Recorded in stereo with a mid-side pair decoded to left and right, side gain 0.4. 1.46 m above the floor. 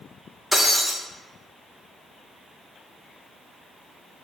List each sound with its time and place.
0.5 s breaking glass: 5° left, 2.0 m